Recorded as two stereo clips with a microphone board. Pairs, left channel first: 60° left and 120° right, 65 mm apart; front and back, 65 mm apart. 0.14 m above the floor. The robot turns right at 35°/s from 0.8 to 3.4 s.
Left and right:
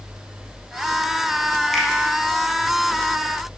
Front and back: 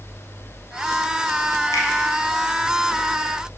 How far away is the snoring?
No snoring in this recording.